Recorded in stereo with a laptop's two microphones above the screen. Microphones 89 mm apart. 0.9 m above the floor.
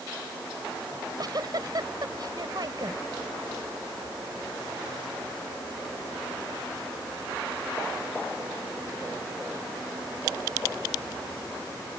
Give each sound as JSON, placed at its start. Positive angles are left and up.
{"t": 0.9, "sound": "a giggle", "side_deg": -50}